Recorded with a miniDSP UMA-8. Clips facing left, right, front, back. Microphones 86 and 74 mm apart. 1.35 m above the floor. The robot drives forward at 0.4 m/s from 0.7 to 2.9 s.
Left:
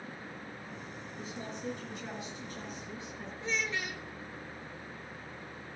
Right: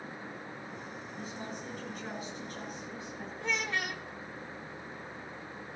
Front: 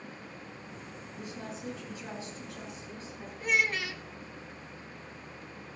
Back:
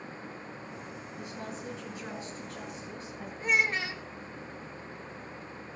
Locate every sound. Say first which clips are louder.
1.2 s a woman speaking: even, even; 140° right, 9.5 m
3.4 s a child speaking: right 1 dB, back 1 dB; 120° right, 1.0 m